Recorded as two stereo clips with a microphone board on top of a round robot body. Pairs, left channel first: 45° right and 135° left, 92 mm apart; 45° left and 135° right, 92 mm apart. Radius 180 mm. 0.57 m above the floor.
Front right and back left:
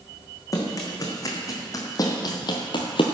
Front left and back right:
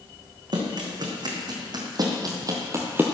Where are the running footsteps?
100° right, 1.9 m; by 3.0 s 65° right, 0.6 m.